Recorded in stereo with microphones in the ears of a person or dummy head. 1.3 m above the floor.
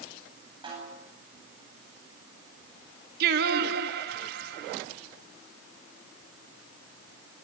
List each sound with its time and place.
0.6 s a snare drum: 25° right (ahead or behind), 10 m
3.2 s singing: 70° right (ahead or behind), 1.7 m